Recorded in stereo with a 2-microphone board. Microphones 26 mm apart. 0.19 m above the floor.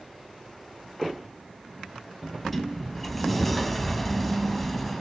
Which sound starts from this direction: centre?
A sliding door, at 2.2 s.